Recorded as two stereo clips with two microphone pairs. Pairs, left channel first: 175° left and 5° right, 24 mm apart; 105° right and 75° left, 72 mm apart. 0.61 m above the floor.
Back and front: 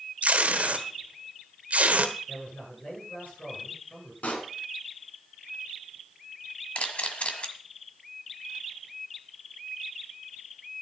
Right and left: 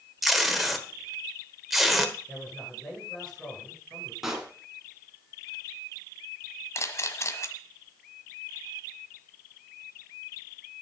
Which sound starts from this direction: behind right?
A camera shutter, at 6.8 s.